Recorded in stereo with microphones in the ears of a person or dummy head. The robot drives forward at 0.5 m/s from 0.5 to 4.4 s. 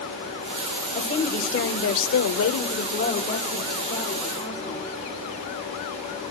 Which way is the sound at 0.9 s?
40° left (ahead or behind).